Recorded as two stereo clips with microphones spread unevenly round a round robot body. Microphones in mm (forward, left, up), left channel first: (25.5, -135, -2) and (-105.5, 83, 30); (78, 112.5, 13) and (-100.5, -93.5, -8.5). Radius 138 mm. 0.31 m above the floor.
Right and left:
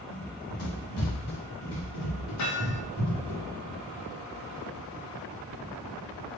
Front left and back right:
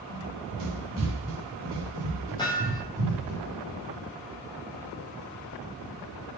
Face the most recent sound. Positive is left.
turn(degrees=-25)